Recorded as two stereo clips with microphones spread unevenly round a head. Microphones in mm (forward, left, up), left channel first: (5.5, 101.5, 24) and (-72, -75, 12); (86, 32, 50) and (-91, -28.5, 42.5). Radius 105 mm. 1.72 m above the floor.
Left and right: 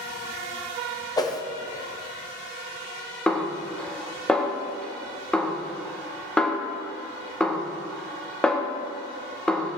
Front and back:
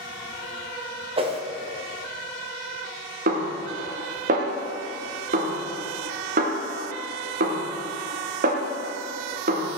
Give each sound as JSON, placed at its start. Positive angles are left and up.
{"t": 1.2, "sound": "a whoosh", "azimuth_deg": 135, "distance_m": 1.4}
{"t": 3.3, "sound": "a snare drum", "azimuth_deg": 150, "distance_m": 1.7}